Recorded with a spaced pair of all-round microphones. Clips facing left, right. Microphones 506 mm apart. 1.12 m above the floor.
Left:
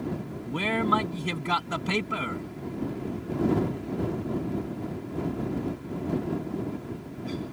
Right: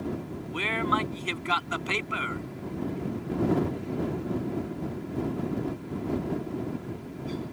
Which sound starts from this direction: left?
A man speaking, at 0.5 s.